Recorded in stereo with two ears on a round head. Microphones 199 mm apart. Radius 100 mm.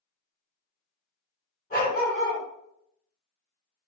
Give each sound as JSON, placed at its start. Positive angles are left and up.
{"t": 1.7, "sound": "a dog barking", "side_deg": 35, "distance_m": 2.0}